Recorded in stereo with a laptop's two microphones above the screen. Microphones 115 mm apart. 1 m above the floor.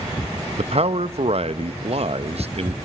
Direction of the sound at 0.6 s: 60° right (ahead or behind).